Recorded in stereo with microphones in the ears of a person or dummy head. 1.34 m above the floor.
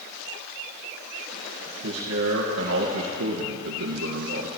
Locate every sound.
1.8 s a man speaking: 75° right (ahead or behind), 1.6 m